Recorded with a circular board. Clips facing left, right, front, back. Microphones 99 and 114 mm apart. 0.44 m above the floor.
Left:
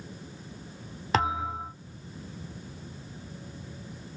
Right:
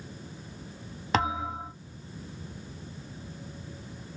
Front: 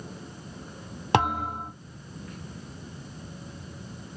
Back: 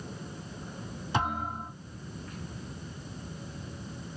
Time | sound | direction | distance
1.1 | a thud | straight ahead | 1.5 m